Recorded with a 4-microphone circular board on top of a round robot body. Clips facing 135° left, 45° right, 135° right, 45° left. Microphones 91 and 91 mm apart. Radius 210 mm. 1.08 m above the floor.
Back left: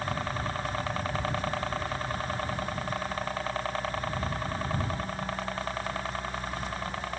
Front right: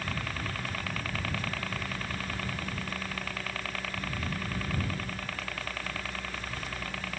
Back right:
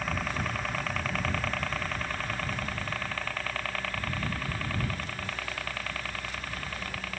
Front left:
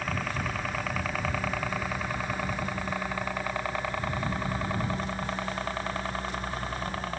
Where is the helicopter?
135° left; by 7.2 s 90° left.